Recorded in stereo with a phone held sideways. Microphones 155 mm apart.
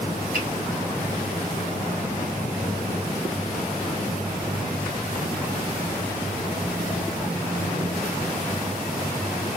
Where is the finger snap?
65° right (ahead or behind), 1.5 m.